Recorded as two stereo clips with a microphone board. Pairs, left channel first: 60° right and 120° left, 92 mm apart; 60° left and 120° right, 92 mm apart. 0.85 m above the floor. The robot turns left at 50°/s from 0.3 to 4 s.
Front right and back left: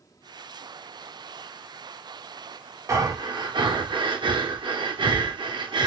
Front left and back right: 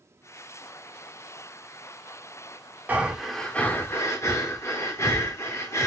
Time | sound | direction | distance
2.9 | breathing | 170° left | 0.7 m